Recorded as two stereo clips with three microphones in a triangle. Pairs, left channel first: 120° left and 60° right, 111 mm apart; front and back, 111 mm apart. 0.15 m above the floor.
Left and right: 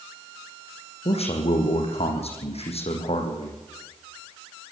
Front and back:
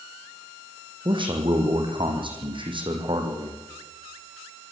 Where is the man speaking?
140° left, 6.5 m.